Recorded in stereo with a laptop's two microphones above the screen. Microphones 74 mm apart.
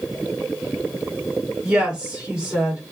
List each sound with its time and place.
1.6 s a woman speaking: 15° right (ahead or behind), 1.9 m